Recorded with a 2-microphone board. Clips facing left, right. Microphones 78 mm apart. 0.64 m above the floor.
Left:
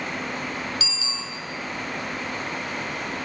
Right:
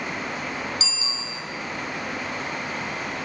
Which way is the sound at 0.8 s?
30° right (ahead or behind).